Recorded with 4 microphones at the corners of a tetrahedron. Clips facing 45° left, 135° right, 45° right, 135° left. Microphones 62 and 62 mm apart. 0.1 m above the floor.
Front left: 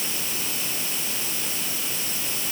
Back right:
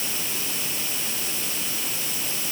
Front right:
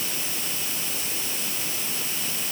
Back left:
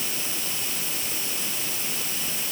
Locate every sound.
Only background noise.